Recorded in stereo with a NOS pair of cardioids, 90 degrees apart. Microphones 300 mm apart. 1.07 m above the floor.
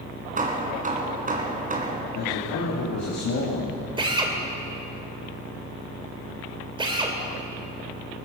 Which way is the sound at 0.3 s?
30° right.